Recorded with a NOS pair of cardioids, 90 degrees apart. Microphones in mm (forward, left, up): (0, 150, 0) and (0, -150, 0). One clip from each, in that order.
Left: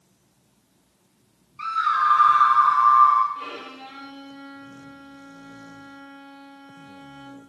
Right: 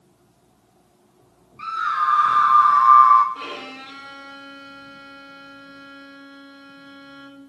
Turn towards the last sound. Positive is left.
turn(degrees=-55)